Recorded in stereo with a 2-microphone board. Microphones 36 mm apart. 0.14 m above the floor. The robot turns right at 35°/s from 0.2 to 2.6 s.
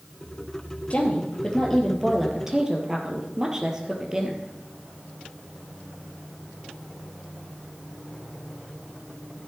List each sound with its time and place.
0.9 s a woman speaking: 140° left, 2.5 m; by 4.4 s 160° right, 2.5 m